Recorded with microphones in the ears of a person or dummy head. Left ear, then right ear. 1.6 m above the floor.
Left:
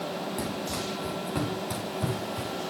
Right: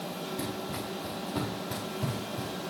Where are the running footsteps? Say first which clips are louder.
Left 3 dB; 60° left (ahead or behind), 4.5 m; by 2.5 s 70° left (ahead or behind), 5 m.